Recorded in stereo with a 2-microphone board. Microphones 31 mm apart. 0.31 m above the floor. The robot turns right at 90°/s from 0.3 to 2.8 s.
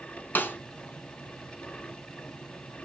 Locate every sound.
0.3 s a snare drum: 70° left (ahead or behind), 1.9 m